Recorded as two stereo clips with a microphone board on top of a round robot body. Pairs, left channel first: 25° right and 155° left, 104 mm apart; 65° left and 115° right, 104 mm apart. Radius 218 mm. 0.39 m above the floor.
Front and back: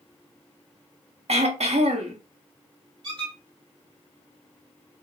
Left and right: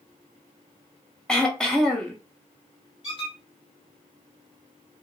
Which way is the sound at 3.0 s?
110° left.